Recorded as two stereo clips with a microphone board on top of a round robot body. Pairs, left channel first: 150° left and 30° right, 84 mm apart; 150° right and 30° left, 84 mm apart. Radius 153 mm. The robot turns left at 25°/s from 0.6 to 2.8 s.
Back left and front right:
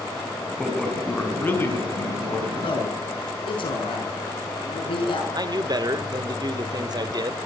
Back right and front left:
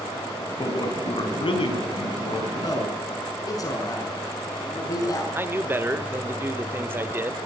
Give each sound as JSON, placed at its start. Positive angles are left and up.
{"t": 0.6, "sound": "a man speaking", "azimuth_deg": -120, "distance_m": 5.0}
{"t": 2.6, "sound": "a man speaking", "azimuth_deg": 170, "distance_m": 6.5}
{"t": 5.3, "sound": "a man speaking", "azimuth_deg": -25, "distance_m": 1.6}